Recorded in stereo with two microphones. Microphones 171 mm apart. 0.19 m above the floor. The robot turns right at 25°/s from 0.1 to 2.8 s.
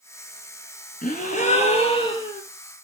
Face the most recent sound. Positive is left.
turn(degrees=165)